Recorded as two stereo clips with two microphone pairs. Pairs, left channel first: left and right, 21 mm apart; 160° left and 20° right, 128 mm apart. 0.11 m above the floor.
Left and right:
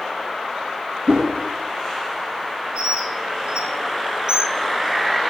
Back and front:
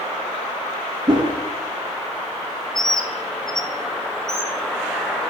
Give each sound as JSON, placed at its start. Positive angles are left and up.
{"t": 1.1, "sound": "a whoosh", "azimuth_deg": -70, "distance_m": 1.8}
{"t": 2.8, "sound": "a bird", "azimuth_deg": -120, "distance_m": 0.7}